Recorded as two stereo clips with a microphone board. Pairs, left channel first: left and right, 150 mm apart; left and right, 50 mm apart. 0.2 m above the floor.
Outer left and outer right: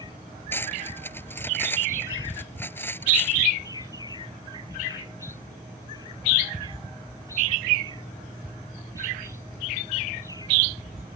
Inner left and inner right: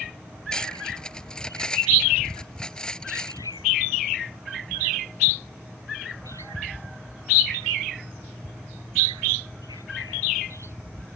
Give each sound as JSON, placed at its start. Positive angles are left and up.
{"t": 0.5, "sound": "cutlery clinking", "side_deg": 15}